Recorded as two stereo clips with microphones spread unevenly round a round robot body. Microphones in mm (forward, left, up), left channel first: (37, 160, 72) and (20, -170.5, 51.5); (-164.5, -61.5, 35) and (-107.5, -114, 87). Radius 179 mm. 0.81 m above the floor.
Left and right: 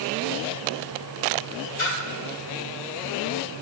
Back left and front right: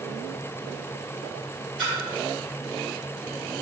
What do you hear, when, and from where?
1.8 s a splash: 45° left, 2.5 m